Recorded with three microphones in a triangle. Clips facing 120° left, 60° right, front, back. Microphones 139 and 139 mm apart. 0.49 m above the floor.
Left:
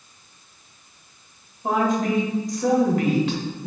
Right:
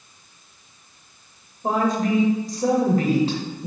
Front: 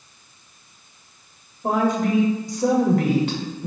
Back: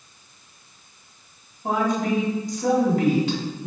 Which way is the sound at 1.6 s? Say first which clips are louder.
Even, front 2 dB; 10° right.